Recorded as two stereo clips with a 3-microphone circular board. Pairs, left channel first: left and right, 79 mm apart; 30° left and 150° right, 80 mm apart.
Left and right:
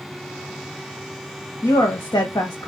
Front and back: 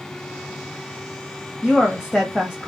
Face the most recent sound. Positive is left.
turn(degrees=125)